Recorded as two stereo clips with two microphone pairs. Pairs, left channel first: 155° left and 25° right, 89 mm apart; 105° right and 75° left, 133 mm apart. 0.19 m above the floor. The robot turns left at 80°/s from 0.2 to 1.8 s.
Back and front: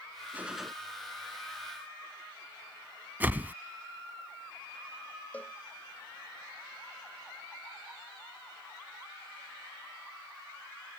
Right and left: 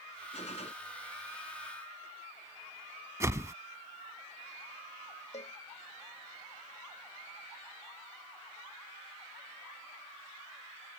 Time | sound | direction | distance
0.3 | a gunshot | 90° right | ?
3.2 | a whoosh | 25° left | ?
5.3 | a cowbell | 135° right | ?